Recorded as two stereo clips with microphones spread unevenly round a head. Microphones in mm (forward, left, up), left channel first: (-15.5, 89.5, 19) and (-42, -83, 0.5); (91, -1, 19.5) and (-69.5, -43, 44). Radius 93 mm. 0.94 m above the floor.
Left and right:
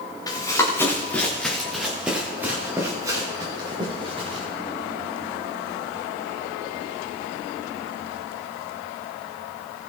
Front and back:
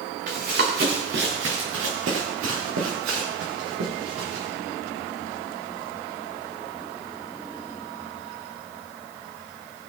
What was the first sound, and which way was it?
Running footsteps, 150° left.